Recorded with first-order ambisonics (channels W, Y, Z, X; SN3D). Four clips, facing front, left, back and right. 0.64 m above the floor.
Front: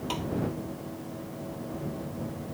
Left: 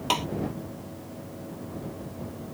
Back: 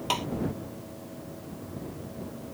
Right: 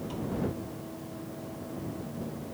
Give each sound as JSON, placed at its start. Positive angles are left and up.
{"t": 0.1, "sound": "tapping", "azimuth_deg": 110}